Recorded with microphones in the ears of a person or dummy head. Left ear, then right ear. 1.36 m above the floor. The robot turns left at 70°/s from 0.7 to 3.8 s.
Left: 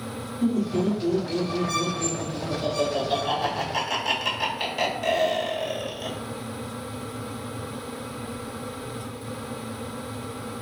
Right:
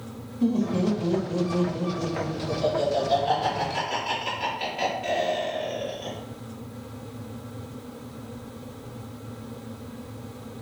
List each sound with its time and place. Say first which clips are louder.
0.4 s laughter: even; 10° right (ahead or behind), 1.7 m; by 6.2 s 50° left (ahead or behind), 1.7 m